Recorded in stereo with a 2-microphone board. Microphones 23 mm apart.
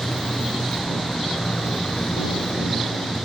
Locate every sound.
0.0 s a motorcycle: 35° left (ahead or behind)